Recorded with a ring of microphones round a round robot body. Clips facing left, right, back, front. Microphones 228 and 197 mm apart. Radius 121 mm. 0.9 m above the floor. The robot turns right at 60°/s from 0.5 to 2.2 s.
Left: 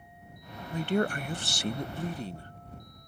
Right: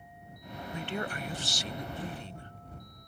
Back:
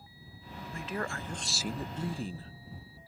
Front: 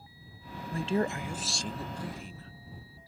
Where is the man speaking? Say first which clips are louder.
Left 9 dB, front 8 dB; 45° left; by 2.5 s 130° left.